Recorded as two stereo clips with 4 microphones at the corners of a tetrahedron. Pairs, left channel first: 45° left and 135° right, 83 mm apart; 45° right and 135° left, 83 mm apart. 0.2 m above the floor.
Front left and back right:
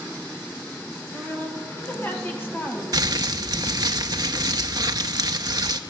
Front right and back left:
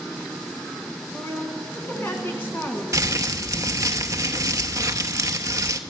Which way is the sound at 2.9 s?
175° right.